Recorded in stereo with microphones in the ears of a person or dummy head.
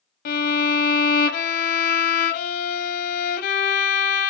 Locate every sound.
0.2 s a violin: 50° left (ahead or behind), 0.6 m